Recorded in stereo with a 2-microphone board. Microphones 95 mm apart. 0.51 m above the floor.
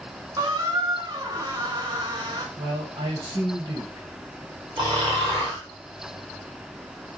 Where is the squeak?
45° right (ahead or behind), 0.9 m.